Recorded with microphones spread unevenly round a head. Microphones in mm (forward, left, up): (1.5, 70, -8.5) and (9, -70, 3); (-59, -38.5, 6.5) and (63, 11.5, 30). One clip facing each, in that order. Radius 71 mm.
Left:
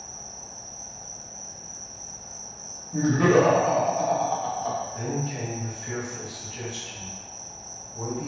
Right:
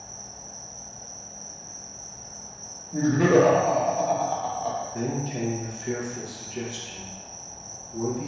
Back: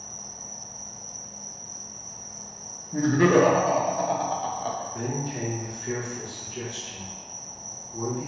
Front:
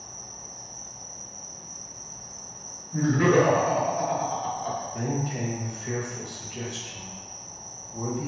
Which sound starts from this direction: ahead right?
A man speaking, at 4.9 s.